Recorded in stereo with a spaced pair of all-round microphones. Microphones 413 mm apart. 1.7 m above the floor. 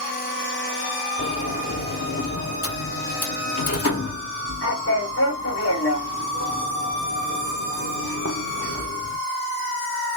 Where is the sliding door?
35° left (ahead or behind), 0.7 m.